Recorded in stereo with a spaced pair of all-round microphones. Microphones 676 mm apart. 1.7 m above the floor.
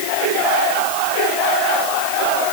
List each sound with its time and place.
Only background noise.